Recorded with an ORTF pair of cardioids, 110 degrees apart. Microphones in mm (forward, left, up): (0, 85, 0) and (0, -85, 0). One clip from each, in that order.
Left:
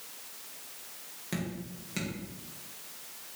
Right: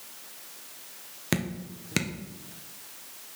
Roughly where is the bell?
No bell in this recording.